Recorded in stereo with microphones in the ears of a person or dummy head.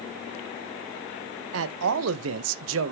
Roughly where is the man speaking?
Right.